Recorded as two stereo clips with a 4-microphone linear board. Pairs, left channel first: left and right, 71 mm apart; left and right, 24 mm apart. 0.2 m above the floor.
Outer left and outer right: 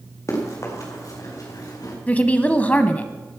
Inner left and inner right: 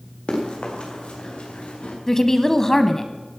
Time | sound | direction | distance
0.3 | running footsteps | 50° left (ahead or behind) | 5 m
2.1 | a woman speaking | 25° left (ahead or behind) | 1.0 m